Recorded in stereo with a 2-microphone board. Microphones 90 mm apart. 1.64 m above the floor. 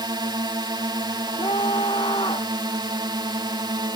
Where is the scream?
70° left (ahead or behind).